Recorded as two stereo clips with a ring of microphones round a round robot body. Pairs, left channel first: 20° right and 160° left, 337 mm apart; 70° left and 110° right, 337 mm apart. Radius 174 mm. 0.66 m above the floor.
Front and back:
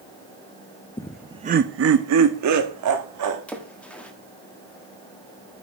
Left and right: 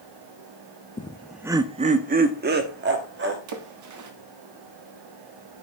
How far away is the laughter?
About 0.5 m.